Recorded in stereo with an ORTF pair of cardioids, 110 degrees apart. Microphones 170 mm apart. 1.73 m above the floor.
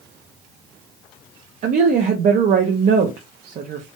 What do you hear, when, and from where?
1.6 s a woman speaking: 50° right, 0.6 m